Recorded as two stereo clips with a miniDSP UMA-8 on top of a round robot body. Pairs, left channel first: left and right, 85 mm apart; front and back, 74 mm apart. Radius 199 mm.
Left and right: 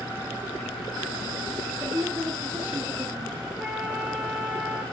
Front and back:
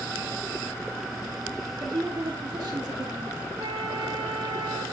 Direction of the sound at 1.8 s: 155° right.